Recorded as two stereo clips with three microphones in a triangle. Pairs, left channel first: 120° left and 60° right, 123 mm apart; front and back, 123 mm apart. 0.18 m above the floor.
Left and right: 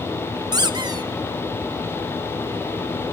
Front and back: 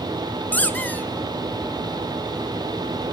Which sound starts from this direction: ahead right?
A squeak, at 0.5 s.